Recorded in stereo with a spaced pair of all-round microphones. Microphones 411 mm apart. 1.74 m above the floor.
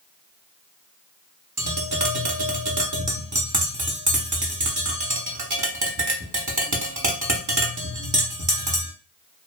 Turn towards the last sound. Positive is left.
turn(degrees=-45)  # may be behind; listen again after turning